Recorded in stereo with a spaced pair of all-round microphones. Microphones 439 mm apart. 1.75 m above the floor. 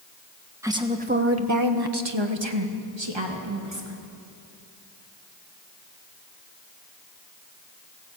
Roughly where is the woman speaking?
Centre.